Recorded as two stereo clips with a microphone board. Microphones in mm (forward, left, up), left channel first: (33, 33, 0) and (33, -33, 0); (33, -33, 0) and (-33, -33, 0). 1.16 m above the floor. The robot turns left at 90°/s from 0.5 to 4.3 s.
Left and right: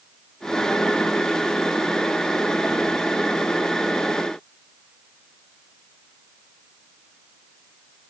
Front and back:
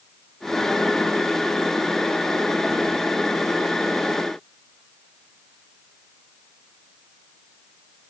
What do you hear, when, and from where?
Only background noise.